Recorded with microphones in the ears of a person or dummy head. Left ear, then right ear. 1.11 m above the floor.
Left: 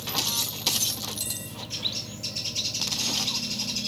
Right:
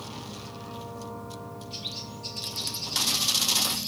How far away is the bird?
About 1.1 m.